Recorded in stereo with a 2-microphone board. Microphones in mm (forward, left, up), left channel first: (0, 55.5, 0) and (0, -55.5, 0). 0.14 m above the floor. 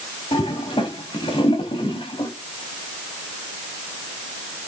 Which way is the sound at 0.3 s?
55° left (ahead or behind).